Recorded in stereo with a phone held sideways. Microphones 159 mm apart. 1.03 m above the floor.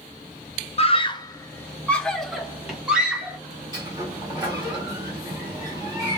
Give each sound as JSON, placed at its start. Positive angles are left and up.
{"t": 0.8, "sound": "a scream", "side_deg": 40, "distance_m": 0.6}
{"t": 3.7, "sound": "a sliding door", "side_deg": -25, "distance_m": 1.2}